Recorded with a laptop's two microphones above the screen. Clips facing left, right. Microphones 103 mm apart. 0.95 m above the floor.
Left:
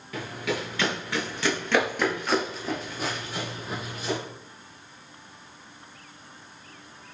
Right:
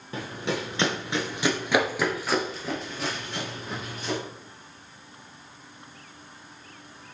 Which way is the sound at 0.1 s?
30° right (ahead or behind).